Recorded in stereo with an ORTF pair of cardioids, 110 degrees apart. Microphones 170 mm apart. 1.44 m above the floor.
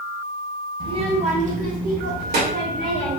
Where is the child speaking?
30° right, 1.0 m; by 3.2 s 75° right, 2 m.